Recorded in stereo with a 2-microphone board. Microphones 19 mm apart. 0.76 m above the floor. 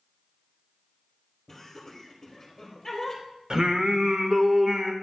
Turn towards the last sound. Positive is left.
turn(degrees=-40)  # may be behind; listen again after turning